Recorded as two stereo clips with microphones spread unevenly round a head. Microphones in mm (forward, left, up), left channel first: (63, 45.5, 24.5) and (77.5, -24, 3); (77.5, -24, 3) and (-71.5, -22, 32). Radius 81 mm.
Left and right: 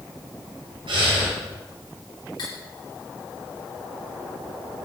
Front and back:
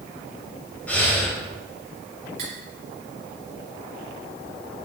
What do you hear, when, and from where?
0.9 s breathing: 85° right, 4 m
2.4 s cutlery clinking: 135° left, 3 m